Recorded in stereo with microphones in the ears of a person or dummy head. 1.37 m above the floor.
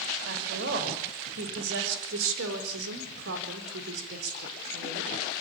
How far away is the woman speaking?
About 6.5 m.